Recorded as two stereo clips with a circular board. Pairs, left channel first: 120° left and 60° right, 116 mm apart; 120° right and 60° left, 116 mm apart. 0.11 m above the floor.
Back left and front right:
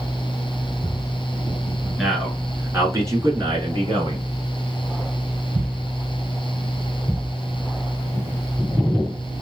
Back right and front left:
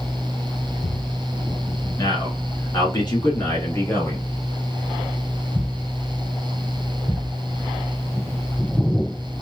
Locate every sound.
2.0 s a man speaking: 145° right, 1.4 m; by 4.3 s 70° right, 1.6 m